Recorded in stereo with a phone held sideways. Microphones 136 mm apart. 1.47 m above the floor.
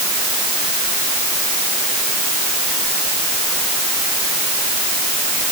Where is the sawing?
I don't hear sawing.